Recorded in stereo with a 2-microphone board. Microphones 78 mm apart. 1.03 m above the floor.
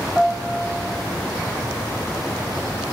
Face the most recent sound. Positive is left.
turn(degrees=5)  # may be behind; listen again after turning